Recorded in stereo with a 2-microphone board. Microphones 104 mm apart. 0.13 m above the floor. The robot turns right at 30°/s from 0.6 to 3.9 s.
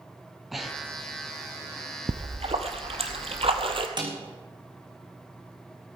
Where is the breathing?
Centre (ahead or behind), 1.5 m; by 1.1 s 15° left (ahead or behind), 1.5 m.